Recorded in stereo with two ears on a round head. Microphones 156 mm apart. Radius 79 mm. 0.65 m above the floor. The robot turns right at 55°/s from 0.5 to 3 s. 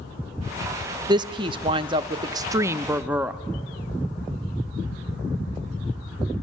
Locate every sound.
1.1 s a woman speaking: 25° right (ahead or behind), 0.5 m; by 3.4 s 10° right (ahead or behind), 0.5 m